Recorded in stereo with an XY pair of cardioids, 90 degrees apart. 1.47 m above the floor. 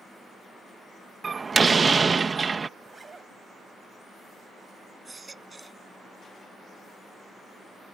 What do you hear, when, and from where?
1.2 s a door slam: 35° right
2.8 s a zipper: 30° right
5.0 s a baby crying: 25° right